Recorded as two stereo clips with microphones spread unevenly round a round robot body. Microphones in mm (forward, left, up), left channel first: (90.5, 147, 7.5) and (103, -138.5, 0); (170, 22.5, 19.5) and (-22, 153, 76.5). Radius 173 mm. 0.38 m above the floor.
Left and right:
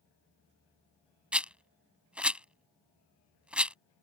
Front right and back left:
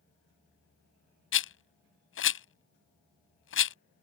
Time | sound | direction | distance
1.3 | a rattle | straight ahead | ?